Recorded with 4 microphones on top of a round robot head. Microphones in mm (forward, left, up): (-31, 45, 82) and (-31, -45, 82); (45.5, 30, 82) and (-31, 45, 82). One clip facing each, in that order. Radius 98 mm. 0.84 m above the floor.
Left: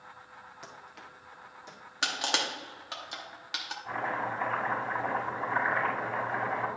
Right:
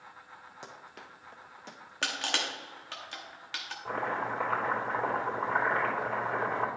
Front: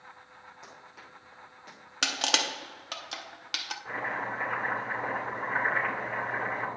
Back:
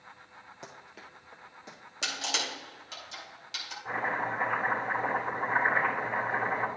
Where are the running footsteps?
145° right, 1.0 m; by 2.5 s 115° right, 2 m.